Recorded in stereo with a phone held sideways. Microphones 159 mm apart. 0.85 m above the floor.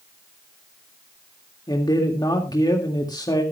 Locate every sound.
1.7 s a man speaking: 25° left (ahead or behind), 2.0 m